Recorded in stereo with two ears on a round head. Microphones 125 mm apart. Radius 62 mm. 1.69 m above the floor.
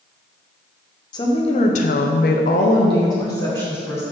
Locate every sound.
1.1 s a woman speaking: 30° left (ahead or behind), 1.0 m; by 4.0 s 20° left (ahead or behind), 1.7 m